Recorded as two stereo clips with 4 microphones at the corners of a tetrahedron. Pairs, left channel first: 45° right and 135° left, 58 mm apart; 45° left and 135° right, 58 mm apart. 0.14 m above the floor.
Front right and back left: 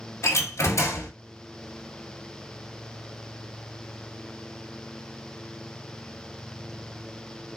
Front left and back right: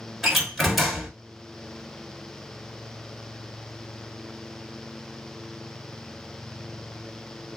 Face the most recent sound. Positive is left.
turn(degrees=-45)